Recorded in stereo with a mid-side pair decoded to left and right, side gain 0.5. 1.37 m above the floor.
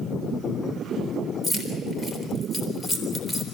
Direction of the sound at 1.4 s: 20° left.